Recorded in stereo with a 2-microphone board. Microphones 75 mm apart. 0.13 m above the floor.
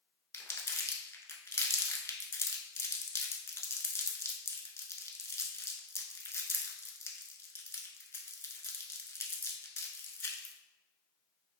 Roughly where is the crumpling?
Left.